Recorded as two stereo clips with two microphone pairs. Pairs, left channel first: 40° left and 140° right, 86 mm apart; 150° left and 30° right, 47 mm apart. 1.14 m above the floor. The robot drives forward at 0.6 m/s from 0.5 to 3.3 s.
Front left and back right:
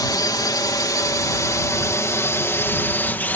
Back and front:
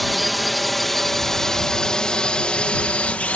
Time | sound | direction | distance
0.0 | a drone | 60° left | ?